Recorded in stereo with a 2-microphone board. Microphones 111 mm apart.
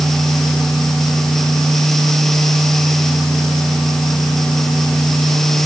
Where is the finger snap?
No finger snap in this recording.